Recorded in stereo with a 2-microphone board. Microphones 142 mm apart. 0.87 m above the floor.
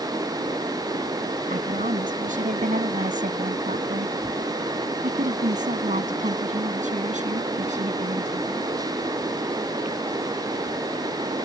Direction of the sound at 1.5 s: 75° right (ahead or behind).